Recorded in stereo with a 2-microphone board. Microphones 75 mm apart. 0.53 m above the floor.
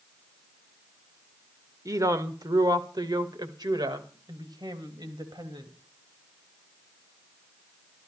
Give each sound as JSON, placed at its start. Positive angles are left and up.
{"t": 1.9, "sound": "a woman speaking", "side_deg": -45, "distance_m": 1.7}